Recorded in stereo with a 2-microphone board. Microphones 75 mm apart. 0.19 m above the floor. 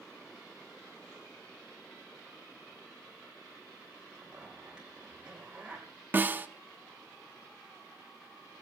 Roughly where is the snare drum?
Right.